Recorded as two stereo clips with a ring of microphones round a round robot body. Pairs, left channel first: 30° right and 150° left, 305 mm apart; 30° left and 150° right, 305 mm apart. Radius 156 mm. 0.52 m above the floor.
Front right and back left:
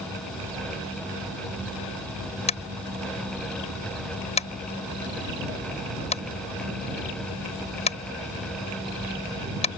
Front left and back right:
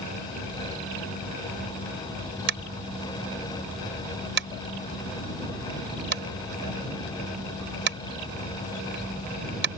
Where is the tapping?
100° right.